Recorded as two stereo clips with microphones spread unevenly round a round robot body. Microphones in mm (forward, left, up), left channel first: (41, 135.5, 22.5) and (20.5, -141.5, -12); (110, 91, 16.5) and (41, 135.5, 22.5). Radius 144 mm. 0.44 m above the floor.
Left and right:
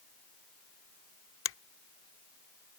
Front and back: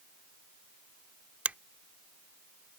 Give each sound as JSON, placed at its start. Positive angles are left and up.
{"t": 1.4, "sound": "a finger snap", "azimuth_deg": 80}